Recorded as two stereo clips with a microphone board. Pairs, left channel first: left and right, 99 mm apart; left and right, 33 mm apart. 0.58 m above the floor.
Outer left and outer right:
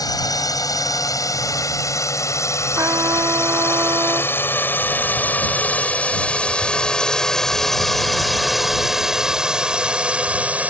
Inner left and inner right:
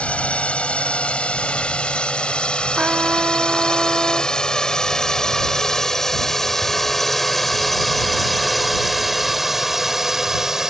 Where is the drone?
40° left (ahead or behind); by 10.7 s 15° right (ahead or behind).